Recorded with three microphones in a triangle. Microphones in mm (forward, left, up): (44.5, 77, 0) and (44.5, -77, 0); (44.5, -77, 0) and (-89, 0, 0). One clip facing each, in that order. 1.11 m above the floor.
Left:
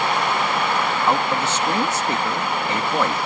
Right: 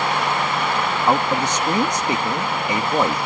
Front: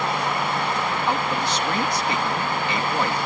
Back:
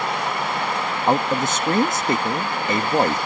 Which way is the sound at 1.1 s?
165° right.